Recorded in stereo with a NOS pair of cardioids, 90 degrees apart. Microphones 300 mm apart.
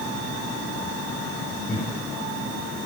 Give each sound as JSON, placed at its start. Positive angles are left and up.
{"t": 1.7, "sound": "laughter", "azimuth_deg": 25, "distance_m": 3.0}